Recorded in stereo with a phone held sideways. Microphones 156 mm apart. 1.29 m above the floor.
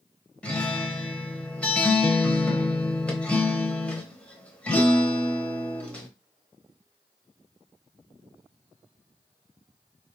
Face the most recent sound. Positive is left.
turn(degrees=10)  # may be behind; listen again after turning